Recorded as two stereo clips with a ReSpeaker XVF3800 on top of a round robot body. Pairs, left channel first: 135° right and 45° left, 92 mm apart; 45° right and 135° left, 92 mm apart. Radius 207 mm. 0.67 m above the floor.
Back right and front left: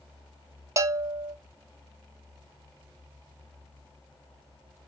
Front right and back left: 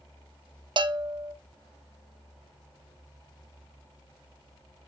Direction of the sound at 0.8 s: 105° left.